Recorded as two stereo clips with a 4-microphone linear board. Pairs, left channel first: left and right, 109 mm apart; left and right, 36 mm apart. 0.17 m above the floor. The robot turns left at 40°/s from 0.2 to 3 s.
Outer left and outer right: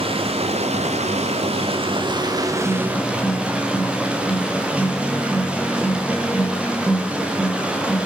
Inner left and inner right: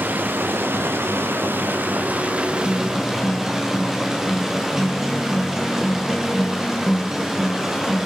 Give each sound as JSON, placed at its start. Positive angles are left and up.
{"t": 0.0, "sound": "running water", "azimuth_deg": -60, "distance_m": 4.5}
{"t": 2.6, "sound": "a guitar", "side_deg": -25, "distance_m": 4.5}